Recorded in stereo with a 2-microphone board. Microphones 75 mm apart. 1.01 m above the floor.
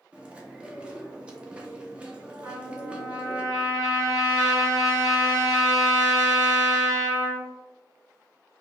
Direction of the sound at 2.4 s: 45° right (ahead or behind).